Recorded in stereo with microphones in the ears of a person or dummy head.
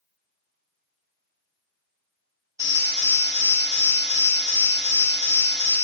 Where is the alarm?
20° right (ahead or behind), 2.5 m.